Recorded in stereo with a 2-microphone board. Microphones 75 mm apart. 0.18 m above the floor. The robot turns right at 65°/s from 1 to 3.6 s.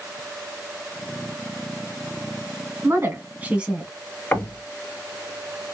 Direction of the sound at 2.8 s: 70° right.